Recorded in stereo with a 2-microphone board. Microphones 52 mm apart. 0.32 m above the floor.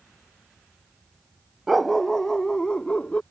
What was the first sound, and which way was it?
A dog barking, 5° right (ahead or behind).